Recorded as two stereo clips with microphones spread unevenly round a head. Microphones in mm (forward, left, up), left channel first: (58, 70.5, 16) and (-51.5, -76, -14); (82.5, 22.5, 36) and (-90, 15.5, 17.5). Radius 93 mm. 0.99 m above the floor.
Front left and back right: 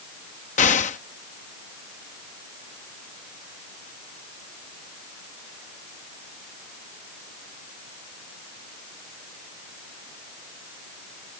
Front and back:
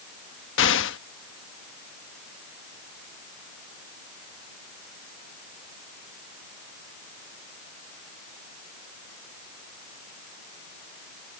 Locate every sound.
0.6 s an explosion: straight ahead